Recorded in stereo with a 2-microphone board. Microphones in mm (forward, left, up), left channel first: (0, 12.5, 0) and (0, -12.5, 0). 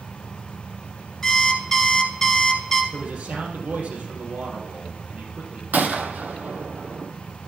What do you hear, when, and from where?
1.2 s an alarm clock: 20° left (ahead or behind), 1.1 m
2.9 s a man speaking: 70° right (ahead or behind), 3 m
5.7 s a gunshot: 80° right, 0.8 m